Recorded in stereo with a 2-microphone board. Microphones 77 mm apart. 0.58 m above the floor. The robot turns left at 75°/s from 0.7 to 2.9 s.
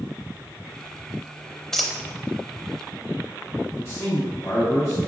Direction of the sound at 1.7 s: 5° left (ahead or behind).